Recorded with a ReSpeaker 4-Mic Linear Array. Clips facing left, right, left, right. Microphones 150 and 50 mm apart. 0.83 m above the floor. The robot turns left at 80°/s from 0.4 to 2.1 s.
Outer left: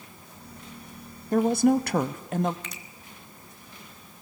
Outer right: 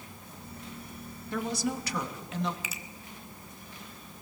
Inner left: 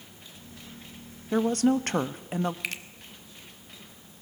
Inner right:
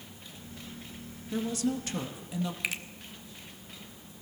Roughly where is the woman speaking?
Behind left.